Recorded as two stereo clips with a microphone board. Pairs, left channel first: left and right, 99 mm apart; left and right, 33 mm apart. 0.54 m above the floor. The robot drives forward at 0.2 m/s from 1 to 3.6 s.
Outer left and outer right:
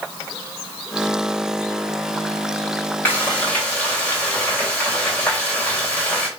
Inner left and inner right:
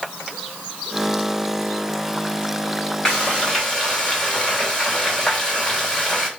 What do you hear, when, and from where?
3.0 s frying: 15° left (ahead or behind), 2.5 m